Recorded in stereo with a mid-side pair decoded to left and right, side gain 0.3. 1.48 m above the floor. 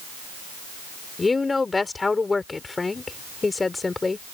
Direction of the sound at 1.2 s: 40° left.